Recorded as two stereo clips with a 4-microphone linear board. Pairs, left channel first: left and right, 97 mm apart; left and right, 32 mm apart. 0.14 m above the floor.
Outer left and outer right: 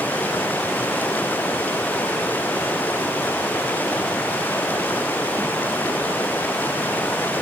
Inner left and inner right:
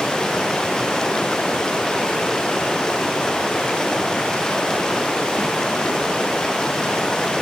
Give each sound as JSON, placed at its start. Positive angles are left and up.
{"t": 0.0, "sound": "running water", "side_deg": 20}